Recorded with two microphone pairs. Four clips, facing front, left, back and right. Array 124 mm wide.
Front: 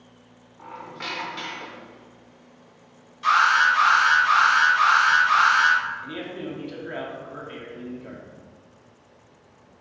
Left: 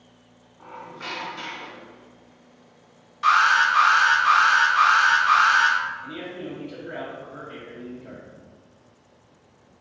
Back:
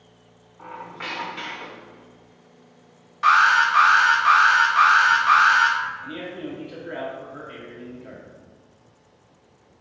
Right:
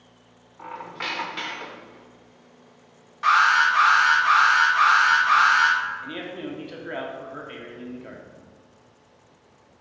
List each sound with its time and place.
0.6 s a squeak: 85° right, 0.6 m
3.2 s an alarm: 160° right, 1.4 m
6.0 s a man speaking: 75° right, 0.9 m